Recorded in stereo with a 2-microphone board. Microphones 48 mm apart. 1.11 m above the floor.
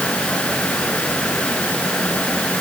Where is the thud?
I don't hear a thud.